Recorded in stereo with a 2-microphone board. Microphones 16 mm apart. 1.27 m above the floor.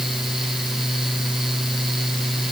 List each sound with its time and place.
Only background noise.